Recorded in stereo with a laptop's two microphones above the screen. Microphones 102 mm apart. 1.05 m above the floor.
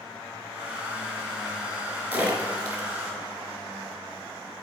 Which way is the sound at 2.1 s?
15° right (ahead or behind).